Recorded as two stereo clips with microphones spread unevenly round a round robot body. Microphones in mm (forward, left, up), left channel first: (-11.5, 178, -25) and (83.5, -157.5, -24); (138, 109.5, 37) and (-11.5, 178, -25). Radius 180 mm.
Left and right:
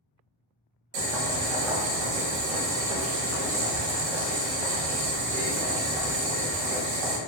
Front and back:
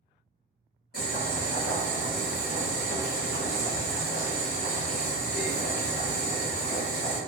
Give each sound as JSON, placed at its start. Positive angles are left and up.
{"t": 0.9, "sound": "boiling", "azimuth_deg": -95, "distance_m": 0.8}